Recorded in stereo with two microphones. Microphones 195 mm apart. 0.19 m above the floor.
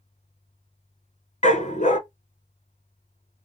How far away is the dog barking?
About 0.7 m.